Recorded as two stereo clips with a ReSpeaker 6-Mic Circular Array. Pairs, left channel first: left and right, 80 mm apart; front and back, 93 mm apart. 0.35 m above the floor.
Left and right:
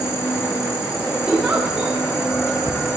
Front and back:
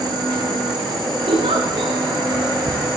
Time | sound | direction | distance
0.0 | an insect | 145° left | 7.5 m
1.3 | a giggle | 170° right | 7.5 m